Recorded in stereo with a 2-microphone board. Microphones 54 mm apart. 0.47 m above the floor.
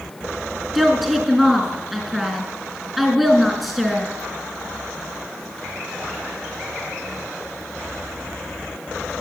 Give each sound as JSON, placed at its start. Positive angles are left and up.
{"t": 0.8, "sound": "a woman speaking", "side_deg": -5, "distance_m": 4.5}